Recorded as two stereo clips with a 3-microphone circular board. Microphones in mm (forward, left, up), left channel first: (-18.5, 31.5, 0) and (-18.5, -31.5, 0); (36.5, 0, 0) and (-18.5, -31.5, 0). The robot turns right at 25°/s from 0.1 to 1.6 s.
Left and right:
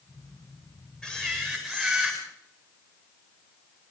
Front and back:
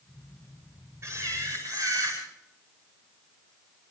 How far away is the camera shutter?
About 9.5 m.